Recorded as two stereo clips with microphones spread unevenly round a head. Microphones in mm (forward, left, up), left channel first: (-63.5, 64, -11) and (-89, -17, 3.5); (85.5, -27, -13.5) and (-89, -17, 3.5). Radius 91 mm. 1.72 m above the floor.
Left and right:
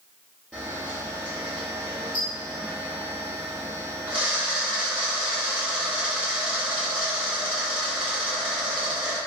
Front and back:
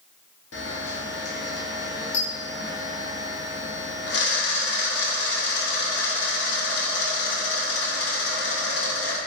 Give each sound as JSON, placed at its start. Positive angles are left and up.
{"t": 0.5, "sound": "a camera shutter", "azimuth_deg": -15, "distance_m": 0.6}